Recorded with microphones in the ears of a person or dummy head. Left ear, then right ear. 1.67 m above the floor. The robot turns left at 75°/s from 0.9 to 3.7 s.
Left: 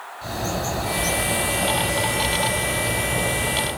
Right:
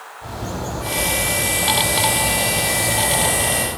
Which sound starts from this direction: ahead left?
A bird, at 0.2 s.